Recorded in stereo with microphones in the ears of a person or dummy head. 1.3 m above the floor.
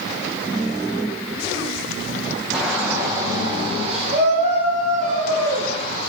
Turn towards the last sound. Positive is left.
turn(degrees=-55)  # may be behind; listen again after turning